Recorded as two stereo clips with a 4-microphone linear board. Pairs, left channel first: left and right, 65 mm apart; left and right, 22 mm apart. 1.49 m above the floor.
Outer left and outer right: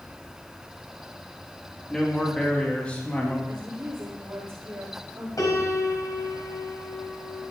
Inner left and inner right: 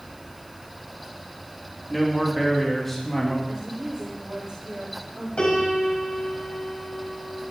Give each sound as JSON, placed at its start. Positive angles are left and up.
{"t": 1.9, "sound": "a man speaking", "side_deg": 5, "distance_m": 3.5}
{"t": 3.5, "sound": "a woman speaking", "side_deg": -35, "distance_m": 4.0}
{"t": 5.4, "sound": "a piano", "side_deg": 65, "distance_m": 4.0}